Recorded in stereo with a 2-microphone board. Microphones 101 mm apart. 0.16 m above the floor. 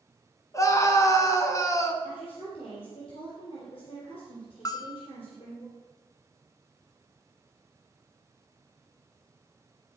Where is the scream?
30° left (ahead or behind), 1.5 m.